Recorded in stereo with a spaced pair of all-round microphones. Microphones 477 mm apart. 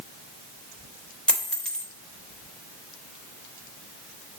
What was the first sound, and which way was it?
A dropped coin, centre (ahead or behind).